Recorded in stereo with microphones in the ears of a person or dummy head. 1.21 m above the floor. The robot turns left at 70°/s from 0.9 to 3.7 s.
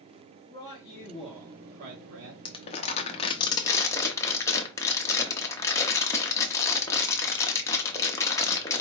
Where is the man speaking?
25° left, 1.3 m; by 2.4 s 80° right, 1.3 m.